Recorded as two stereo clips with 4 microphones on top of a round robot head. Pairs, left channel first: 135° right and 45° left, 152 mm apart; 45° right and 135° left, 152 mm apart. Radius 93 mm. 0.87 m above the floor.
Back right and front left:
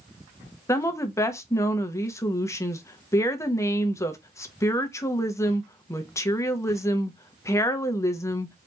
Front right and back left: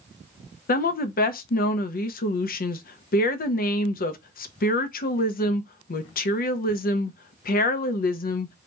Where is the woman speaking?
60° right, 0.6 m.